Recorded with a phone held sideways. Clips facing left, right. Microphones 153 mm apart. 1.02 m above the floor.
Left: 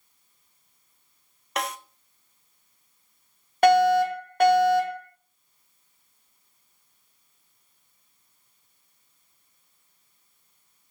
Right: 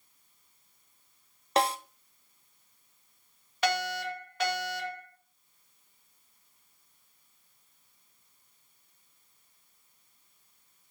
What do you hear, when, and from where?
1.6 s a snare drum: 35° right (ahead or behind), 0.6 m
3.6 s a fire alarm: 55° left (ahead or behind), 2 m